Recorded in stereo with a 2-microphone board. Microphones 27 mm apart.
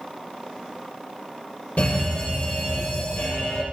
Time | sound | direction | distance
1.8 | a fire alarm | 75° left (ahead or behind) | 8.5 m